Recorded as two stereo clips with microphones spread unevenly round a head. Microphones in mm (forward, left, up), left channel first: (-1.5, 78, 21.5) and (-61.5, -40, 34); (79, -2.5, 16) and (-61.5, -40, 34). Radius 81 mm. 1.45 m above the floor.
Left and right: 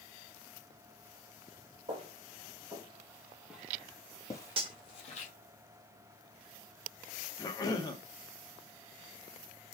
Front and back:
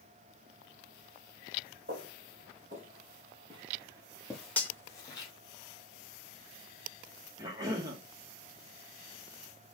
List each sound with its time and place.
1.9 s footsteps: 155° right, 3 m; by 5.3 s 75° left, 2.0 m
4.6 s cutlery clinking: 65° right, 1.0 m
7.4 s a cough: 125° left, 1.7 m